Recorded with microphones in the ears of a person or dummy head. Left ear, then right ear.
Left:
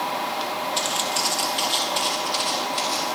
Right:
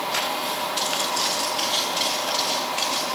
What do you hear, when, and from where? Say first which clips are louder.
0.8 s footsteps: left 1 dB; 30° left (ahead or behind), 3 m; by 3.1 s 25° left (ahead or behind), 4.5 m